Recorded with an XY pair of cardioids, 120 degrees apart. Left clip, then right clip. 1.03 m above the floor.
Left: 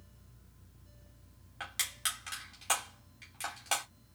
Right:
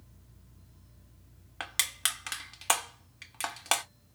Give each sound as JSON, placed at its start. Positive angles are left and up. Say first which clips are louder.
{"t": 1.6, "sound": "crushing", "louder": "right 5 dB", "azimuth_deg": -55, "distance_m": 1.4}